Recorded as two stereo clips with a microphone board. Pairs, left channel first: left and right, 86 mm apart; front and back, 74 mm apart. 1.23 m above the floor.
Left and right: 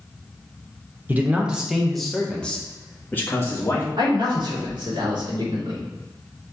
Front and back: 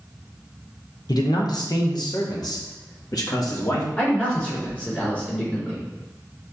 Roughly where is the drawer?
No drawer in this recording.